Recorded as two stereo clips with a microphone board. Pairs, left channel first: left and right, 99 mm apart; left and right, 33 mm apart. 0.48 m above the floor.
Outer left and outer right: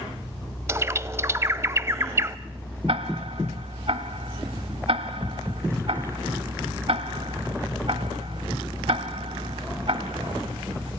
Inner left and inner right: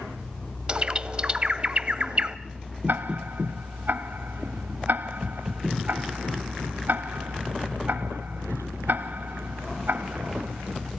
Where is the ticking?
75° right (ahead or behind), 1.2 m.